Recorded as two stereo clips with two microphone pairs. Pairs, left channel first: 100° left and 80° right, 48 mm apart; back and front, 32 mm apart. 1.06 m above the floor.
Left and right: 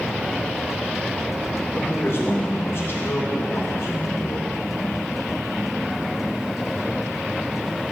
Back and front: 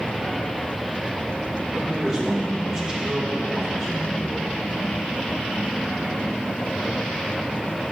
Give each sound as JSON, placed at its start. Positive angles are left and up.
{"t": 1.7, "sound": "a man speaking", "azimuth_deg": 65, "distance_m": 4.5}